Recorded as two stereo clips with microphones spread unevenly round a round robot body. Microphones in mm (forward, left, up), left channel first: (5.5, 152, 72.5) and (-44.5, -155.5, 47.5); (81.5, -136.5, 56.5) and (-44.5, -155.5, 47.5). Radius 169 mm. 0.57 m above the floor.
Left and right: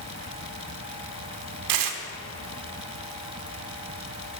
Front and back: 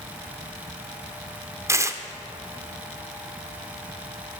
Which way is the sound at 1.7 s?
105° right.